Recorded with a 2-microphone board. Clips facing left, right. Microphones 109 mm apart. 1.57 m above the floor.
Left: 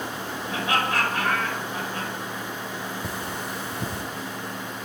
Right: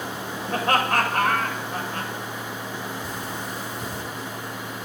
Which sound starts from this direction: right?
Laughter, at 0.5 s.